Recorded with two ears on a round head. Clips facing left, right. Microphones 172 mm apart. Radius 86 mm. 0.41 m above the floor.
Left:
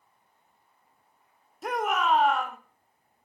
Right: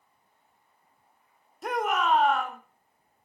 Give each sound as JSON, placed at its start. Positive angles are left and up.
{"t": 1.6, "sound": "a shout", "side_deg": 0, "distance_m": 1.4}